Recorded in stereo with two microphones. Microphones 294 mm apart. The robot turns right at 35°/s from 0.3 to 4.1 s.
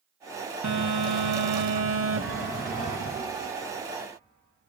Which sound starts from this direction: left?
A chime, at 2.2 s.